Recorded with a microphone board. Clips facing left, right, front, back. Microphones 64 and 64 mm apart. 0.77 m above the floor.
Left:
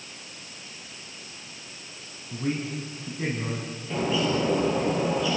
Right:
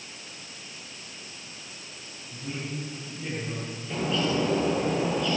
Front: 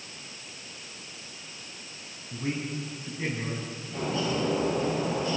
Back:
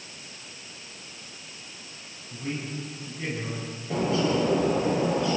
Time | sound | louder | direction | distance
2.3 | a man speaking | left 6 dB, front 1 dB | 65° left | 5.5 m
3.9 | a bird | left 2 dB, back 5 dB | 175° left | 6.5 m